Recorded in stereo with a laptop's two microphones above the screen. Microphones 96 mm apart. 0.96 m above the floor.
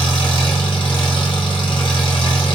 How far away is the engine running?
About 0.8 m.